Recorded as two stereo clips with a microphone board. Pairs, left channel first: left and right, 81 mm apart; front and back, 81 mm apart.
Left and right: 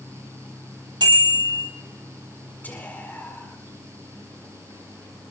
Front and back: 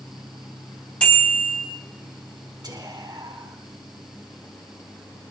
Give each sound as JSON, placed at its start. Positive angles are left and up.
{"t": 1.0, "sound": "a bicycle bell", "azimuth_deg": -75, "distance_m": 9.5}
{"t": 2.6, "sound": "whispering", "azimuth_deg": 155, "distance_m": 4.0}